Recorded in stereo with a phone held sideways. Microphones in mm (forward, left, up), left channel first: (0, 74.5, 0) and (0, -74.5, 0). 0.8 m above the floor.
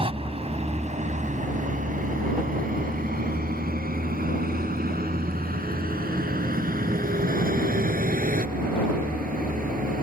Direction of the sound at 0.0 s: 40° right (ahead or behind).